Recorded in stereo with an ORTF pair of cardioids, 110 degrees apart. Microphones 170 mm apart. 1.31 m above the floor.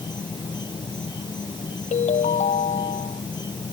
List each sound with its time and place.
0.0 s an insect: 25° left
1.9 s a ringtone: 45° left